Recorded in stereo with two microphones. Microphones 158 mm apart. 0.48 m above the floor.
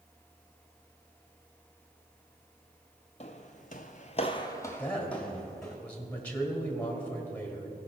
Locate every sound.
3.2 s footsteps: 40° left (ahead or behind), 1.0 m; by 5.8 s centre (ahead or behind), 2 m
4.8 s a man speaking: 10° left (ahead or behind), 1.9 m